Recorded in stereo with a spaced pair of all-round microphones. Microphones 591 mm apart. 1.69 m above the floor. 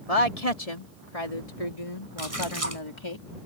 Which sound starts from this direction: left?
A woman speaking, at 0.1 s.